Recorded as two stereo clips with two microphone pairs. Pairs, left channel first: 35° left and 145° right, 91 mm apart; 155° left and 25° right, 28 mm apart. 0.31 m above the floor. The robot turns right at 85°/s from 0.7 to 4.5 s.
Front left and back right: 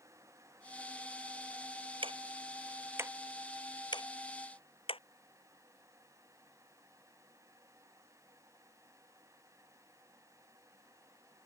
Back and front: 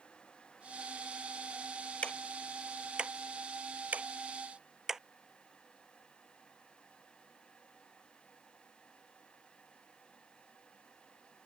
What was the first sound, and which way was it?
Ticking, 165° right.